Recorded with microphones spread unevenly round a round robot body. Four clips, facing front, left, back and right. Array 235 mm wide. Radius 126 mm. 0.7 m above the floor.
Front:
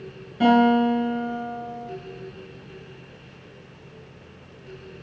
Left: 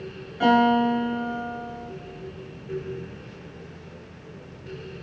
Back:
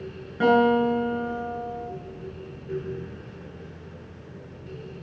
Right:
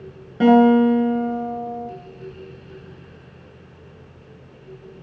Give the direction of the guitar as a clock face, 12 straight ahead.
3 o'clock.